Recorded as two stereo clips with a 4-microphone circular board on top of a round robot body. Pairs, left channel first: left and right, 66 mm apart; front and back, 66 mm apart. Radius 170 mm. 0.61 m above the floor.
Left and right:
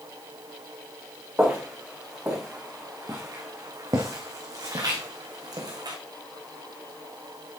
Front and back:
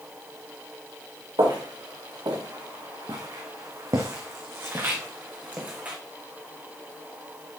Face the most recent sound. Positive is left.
turn(degrees=-110)